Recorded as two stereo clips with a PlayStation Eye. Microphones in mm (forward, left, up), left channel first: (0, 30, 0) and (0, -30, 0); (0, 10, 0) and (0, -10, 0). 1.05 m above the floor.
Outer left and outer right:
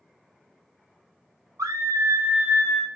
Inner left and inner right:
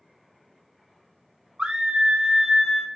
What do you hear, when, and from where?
1.6 s a scream: 70° right (ahead or behind), 0.6 m; by 2.9 s 5° right (ahead or behind), 0.7 m